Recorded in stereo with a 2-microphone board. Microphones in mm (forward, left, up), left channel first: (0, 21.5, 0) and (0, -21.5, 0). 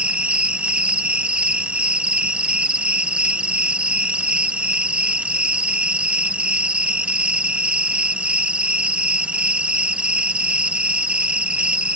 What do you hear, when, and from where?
0.0 s an insect: 30° right (ahead or behind)